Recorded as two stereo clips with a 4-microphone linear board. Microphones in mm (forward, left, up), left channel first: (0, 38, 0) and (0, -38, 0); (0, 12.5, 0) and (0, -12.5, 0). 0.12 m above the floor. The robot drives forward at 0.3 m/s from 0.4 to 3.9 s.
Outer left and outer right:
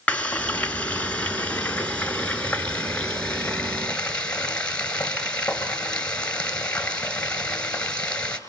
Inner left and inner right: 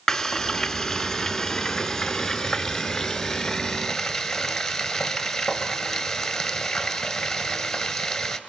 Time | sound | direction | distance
0.1 | frying | 20° left (ahead or behind) | 1.6 m